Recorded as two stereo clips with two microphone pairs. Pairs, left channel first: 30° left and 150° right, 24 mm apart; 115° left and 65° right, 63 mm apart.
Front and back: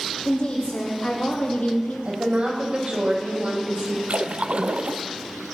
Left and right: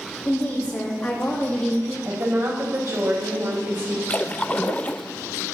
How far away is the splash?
About 0.7 m.